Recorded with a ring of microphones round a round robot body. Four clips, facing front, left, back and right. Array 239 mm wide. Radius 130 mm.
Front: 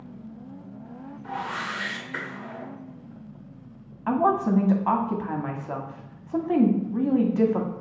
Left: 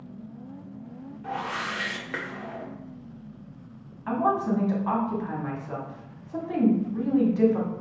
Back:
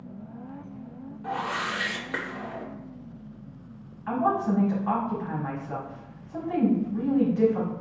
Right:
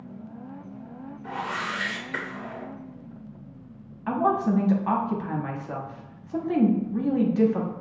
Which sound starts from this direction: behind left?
A whoosh, at 1.2 s.